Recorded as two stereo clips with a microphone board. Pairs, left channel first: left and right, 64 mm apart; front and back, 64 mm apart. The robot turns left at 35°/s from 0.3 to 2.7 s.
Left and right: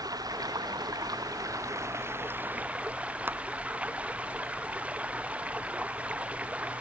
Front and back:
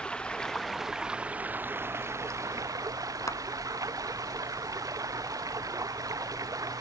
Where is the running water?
75° right; by 6.8 s 160° right.